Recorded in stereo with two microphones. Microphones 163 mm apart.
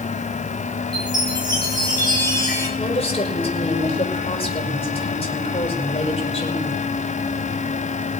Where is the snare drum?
I don't hear a snare drum.